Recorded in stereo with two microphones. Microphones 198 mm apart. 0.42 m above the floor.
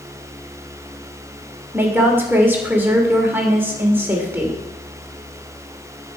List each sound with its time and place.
1.7 s a woman speaking: 10° right (ahead or behind), 1.4 m